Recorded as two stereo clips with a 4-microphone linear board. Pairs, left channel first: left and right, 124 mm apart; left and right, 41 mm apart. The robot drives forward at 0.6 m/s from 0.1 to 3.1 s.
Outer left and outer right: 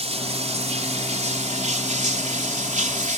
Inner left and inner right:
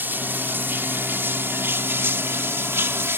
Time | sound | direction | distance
0.0 | running water | 60° right (ahead or behind) | ?